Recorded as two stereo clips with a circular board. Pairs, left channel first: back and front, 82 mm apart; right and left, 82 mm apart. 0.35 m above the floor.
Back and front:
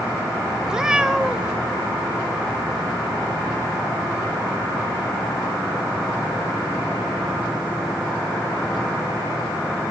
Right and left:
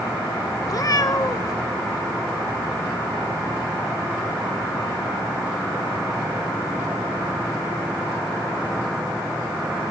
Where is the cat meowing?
80° right, 0.7 m.